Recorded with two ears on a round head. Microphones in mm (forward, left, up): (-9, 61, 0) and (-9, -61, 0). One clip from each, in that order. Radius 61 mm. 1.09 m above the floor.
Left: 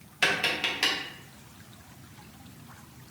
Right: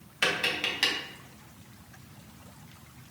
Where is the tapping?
10° right (ahead or behind), 0.8 m.